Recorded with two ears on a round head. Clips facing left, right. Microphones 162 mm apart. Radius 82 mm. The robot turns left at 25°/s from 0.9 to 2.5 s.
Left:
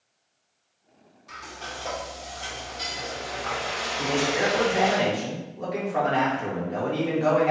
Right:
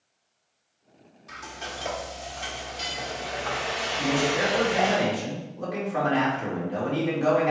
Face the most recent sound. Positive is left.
turn(degrees=-5)  # may be behind; listen again after turning